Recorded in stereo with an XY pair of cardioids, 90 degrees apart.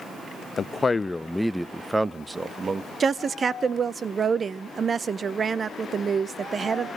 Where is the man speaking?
45° left, 0.7 m; by 2.9 s 40° right, 1.4 m.